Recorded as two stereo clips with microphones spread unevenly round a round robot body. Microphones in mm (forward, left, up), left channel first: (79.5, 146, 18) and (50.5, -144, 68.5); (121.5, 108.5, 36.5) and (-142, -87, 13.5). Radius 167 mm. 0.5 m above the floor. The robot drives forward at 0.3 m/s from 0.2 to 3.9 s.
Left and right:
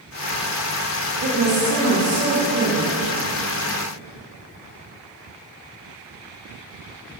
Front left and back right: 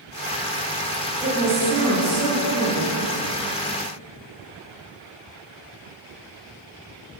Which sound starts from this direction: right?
A woman speaking, at 1.2 s.